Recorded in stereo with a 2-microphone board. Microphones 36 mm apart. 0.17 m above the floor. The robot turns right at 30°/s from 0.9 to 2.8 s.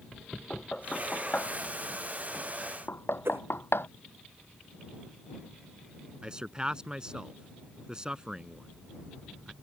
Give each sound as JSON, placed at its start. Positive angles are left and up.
{"t": 0.5, "sound": "knocking", "side_deg": 30}
{"t": 3.2, "sound": "a whoosh", "side_deg": -85}
{"t": 6.2, "sound": "a man speaking", "side_deg": -20}